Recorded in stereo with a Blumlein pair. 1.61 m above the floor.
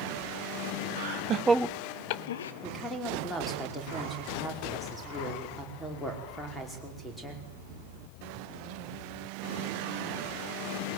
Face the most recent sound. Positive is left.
turn(degrees=5)